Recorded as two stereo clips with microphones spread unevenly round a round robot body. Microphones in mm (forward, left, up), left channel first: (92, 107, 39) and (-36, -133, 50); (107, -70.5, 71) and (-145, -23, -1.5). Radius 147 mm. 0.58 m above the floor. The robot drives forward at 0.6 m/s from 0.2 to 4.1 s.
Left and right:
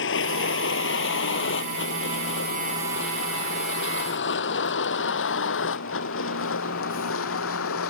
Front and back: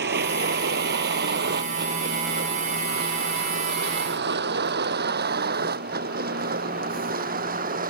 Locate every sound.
0.0 s a vehicle: 115° left; by 7.9 s 105° left